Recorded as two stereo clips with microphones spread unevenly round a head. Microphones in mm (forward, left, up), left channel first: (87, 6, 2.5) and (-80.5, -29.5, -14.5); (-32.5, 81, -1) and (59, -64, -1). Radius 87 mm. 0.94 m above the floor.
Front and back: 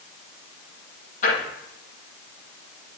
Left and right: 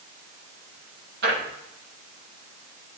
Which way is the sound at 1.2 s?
35° right.